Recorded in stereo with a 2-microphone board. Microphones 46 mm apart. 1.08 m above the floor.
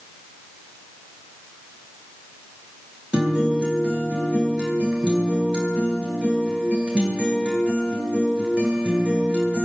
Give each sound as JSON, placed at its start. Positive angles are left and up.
{"t": 3.1, "sound": "a guitar", "side_deg": -25, "distance_m": 10.0}